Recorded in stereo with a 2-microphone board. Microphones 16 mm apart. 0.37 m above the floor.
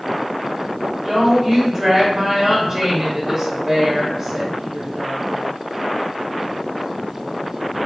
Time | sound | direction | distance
1.1 | a woman speaking | 30° right (ahead or behind) | 1.0 m